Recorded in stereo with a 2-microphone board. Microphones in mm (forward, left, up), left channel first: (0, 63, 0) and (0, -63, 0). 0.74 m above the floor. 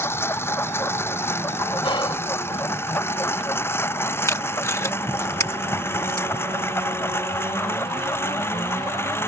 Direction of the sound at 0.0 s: 20° left (ahead or behind).